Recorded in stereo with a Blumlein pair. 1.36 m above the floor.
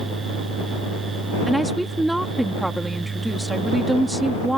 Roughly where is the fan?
Ahead.